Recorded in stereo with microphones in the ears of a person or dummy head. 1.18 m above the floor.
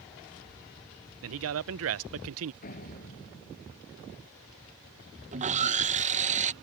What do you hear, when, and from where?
1.2 s a man speaking: 75° right (ahead or behind)
2.6 s a door slam: 45° left (ahead or behind)
5.3 s sawing: 35° right (ahead or behind)